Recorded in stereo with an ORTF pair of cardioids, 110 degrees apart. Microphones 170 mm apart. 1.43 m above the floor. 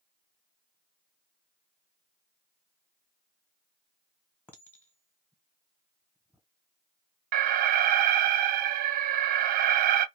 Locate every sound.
4.5 s a clink: 10° left, 0.9 m
7.3 s an alarm: 60° right, 0.5 m